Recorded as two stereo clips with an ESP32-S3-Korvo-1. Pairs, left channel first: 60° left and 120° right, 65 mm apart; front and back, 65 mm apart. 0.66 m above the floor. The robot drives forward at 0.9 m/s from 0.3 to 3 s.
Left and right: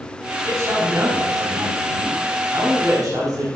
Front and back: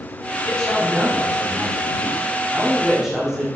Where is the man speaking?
75° right, 6 m; by 3.5 s 100° right, 6 m.